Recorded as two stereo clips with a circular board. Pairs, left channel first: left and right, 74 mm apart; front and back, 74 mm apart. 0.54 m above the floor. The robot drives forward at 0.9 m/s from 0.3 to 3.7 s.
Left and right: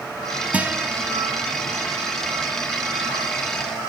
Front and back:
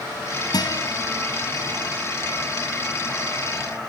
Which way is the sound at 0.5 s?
15° right.